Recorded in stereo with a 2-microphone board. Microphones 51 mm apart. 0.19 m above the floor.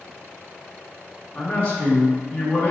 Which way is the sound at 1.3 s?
20° left (ahead or behind).